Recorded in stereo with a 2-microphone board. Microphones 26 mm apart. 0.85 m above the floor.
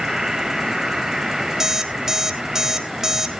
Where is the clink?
I don't hear a clink.